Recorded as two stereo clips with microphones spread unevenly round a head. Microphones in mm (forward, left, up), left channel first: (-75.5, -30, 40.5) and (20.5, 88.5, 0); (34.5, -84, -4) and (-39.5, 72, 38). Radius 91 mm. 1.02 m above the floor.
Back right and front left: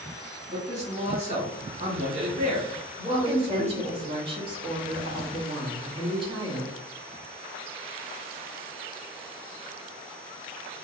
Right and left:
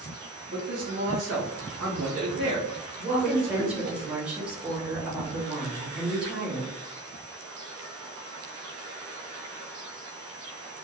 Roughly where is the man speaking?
Left.